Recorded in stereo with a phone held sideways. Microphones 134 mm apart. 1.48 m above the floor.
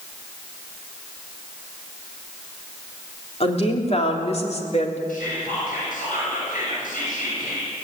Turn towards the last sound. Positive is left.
turn(degrees=85)